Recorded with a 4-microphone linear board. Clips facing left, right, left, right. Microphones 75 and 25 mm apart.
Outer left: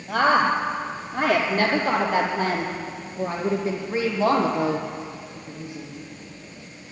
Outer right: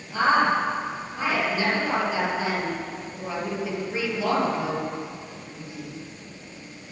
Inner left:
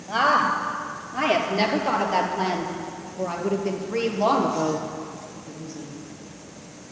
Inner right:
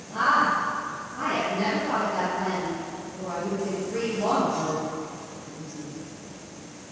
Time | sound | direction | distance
0.1 | a woman speaking | 65° left (ahead or behind) | 3 m